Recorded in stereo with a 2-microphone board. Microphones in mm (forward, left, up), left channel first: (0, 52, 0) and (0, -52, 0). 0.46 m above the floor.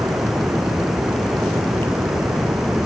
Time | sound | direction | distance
0.0 | running water | centre (ahead or behind) | ?